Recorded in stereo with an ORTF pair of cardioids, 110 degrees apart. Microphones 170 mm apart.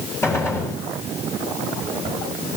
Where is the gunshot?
15° left, 6.5 m.